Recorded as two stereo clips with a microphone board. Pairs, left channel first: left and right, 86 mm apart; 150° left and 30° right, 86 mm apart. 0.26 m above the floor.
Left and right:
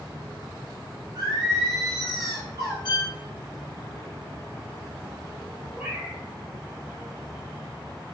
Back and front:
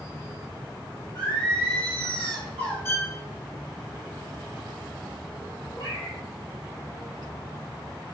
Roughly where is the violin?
Left.